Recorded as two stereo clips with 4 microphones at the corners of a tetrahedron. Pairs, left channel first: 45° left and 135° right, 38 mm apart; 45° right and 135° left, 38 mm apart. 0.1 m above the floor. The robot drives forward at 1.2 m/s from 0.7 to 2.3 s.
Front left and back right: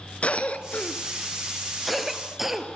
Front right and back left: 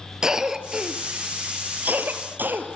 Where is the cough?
70° left, 1.7 m; by 2.7 s 145° left, 2.5 m.